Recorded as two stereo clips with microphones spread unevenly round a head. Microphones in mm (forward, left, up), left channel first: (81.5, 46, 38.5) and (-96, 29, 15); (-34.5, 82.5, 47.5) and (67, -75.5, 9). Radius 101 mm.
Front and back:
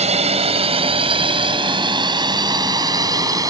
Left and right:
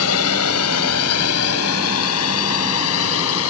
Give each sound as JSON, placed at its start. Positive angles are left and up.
{"t": 0.0, "sound": "a drone", "azimuth_deg": 130}